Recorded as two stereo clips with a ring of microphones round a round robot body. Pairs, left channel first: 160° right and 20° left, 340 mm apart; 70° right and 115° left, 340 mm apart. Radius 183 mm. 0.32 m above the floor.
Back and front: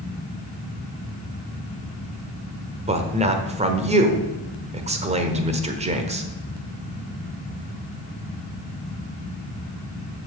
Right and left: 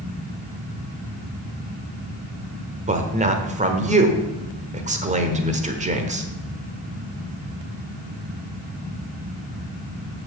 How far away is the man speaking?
About 1.3 m.